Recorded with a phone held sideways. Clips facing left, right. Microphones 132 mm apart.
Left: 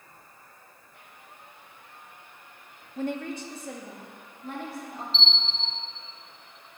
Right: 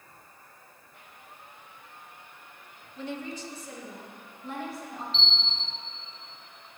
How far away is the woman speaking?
About 0.5 m.